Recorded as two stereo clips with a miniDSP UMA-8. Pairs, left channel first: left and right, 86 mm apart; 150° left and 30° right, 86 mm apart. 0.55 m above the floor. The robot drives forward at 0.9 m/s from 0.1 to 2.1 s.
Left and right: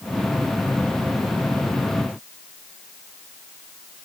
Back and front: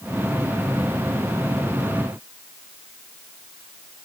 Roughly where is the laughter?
I don't hear laughter.